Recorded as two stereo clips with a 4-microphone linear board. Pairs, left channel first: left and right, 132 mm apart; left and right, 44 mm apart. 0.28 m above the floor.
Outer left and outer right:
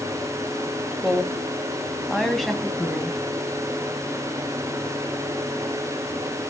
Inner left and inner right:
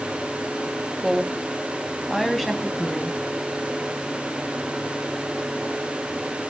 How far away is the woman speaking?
About 1.1 m.